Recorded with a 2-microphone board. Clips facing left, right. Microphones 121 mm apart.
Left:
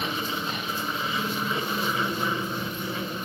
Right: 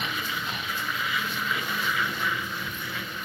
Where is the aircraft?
30° left (ahead or behind).